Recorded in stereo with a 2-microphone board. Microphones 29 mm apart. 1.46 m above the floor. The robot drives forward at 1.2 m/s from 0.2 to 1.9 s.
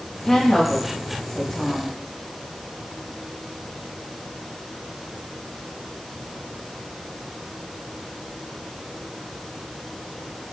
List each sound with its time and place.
0.2 s a woman speaking: 20° left (ahead or behind), 6.5 m; by 1.9 s 15° left (ahead or behind), 8.5 m